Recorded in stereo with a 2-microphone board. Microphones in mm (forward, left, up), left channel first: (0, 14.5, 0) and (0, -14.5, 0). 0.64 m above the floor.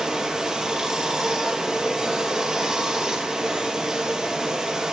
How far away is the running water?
About 4.5 m.